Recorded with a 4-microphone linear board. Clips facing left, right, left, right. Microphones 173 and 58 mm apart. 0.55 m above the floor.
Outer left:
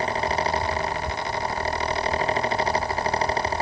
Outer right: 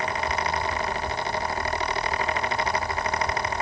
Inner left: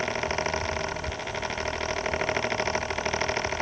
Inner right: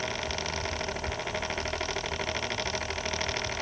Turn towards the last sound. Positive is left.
No sound to turn to.